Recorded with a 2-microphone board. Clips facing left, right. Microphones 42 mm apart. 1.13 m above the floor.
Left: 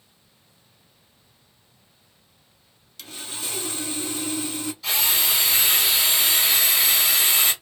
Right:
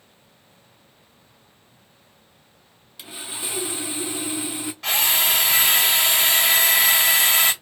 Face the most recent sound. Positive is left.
turn(degrees=-55)  # may be behind; listen again after turning